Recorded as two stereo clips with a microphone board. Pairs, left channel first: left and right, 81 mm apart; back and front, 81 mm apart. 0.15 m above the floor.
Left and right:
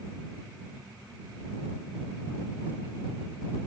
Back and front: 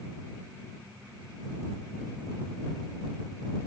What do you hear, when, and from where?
Only background noise.